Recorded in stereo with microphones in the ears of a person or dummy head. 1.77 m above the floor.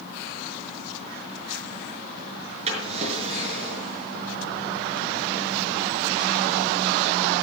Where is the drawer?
35° right (ahead or behind), 5.5 m.